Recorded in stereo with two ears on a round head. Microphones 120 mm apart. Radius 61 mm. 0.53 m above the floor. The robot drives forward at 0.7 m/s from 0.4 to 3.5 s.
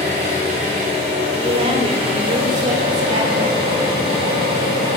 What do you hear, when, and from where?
0.0 s an engine running: 60° right (ahead or behind), 3.5 m; by 5.0 s 40° right (ahead or behind), 5 m
1.4 s a woman speaking: 40° right (ahead or behind), 1.5 m; by 3.7 s 50° right (ahead or behind), 1.2 m